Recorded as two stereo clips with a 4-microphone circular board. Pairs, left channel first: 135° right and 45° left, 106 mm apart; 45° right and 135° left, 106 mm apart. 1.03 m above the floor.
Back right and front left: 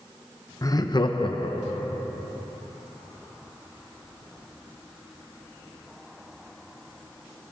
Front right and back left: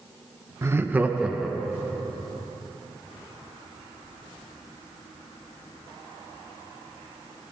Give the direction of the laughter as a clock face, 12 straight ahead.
6 o'clock.